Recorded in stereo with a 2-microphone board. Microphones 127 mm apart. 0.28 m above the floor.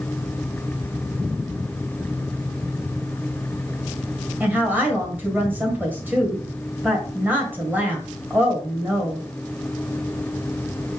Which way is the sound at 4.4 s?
15° right (ahead or behind).